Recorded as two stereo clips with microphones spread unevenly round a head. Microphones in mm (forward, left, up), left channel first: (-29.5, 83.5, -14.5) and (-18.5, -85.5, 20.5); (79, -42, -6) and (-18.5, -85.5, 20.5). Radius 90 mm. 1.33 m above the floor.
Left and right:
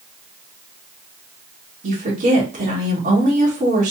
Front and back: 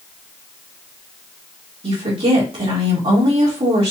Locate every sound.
1.8 s a woman speaking: 135° right, 1.4 m